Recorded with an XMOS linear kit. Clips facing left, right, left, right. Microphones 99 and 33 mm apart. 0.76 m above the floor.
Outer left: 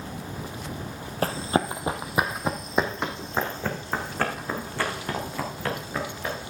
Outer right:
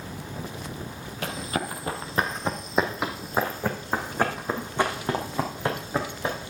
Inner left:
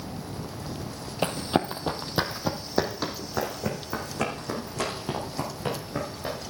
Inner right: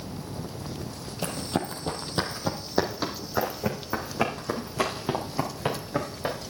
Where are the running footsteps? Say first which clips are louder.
Outer left 6 dB, inner left 4 dB; 40° left (ahead or behind), 1.4 m; by 6.4 s 25° right (ahead or behind), 5 m.